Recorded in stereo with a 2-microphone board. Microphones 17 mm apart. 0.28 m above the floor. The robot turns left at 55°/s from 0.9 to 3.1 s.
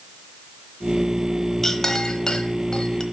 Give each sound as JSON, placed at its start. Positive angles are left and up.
{"t": 1.6, "sound": "a clink", "side_deg": 20, "distance_m": 1.0}